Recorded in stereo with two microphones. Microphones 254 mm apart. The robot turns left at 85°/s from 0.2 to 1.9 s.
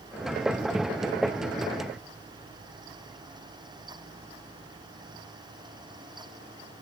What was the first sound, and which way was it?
Only background noise.